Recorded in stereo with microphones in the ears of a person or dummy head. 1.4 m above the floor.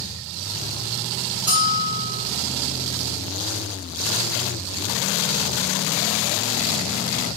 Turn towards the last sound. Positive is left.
turn(degrees=-10)  # may be behind; listen again after turning